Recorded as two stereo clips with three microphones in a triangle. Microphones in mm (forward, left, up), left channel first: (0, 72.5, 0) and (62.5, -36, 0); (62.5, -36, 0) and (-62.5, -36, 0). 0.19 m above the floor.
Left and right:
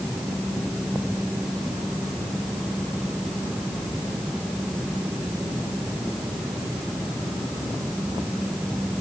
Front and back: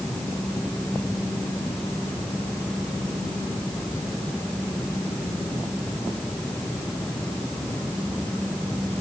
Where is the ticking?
I don't hear ticking.